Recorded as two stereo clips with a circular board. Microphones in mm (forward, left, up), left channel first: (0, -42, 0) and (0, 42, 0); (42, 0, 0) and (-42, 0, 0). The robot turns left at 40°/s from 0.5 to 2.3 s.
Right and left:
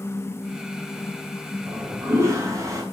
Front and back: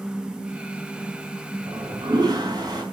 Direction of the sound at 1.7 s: 165° left.